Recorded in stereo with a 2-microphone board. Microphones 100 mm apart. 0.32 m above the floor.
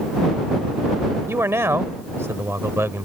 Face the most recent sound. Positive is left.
turn(degrees=-25)  # may be behind; listen again after turning